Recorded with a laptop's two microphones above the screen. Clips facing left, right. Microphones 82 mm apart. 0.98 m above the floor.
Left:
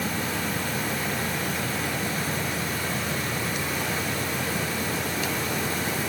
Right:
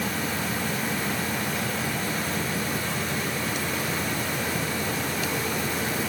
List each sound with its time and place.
Only background noise.